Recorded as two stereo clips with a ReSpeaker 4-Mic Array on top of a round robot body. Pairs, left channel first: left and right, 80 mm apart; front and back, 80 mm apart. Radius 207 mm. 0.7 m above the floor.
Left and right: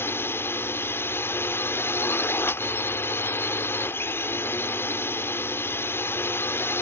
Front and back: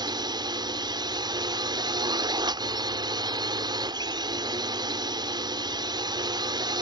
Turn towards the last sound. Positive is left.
turn(degrees=150)